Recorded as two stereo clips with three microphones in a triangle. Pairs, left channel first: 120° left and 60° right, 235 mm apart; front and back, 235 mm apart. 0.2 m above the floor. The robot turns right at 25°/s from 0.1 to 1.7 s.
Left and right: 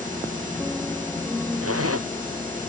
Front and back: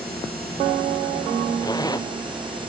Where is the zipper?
75° right.